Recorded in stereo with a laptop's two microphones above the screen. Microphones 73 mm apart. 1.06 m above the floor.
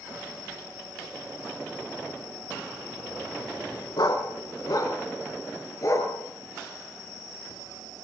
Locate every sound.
4.0 s a dog barking: 60° left (ahead or behind), 3.5 m; by 6.1 s 45° left (ahead or behind), 5.5 m